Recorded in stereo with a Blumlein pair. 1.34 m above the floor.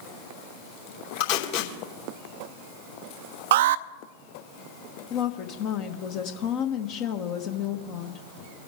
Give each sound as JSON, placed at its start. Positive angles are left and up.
{"t": 1.2, "sound": "tape being pulled", "azimuth_deg": 50, "distance_m": 3.0}
{"t": 3.5, "sound": "an alarm", "azimuth_deg": -55, "distance_m": 0.6}
{"t": 5.1, "sound": "a woman speaking", "azimuth_deg": 40, "distance_m": 1.1}